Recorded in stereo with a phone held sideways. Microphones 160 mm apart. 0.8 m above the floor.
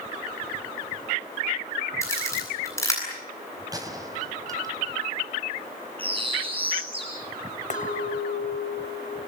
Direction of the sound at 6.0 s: 35° right (ahead or behind).